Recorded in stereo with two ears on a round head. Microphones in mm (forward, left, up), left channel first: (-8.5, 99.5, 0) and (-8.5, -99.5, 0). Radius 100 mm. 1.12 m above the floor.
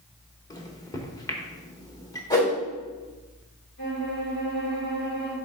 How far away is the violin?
About 2.5 m.